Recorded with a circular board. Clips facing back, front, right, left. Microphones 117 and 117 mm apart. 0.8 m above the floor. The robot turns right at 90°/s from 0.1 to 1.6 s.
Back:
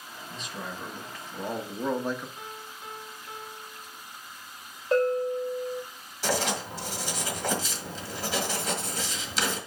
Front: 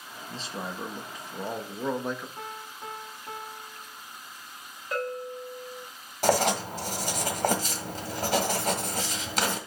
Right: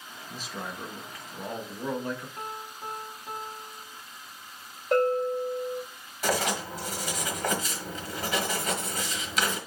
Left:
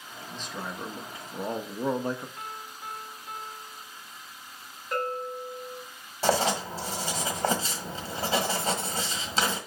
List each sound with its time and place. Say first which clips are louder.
0.3 s a man speaking: front 2 dB, left 1 dB; 20° right, 0.9 m; by 2.3 s 95° left, 0.9 m
2.4 s a piano: front 2 dB, right 2 dB; 35° right, 1.2 m
4.9 s a bell: back 9 dB, right 8 dB; 120° right, 1.4 m
6.2 s writing: front 5 dB, left 3 dB; 35° left, 1.5 m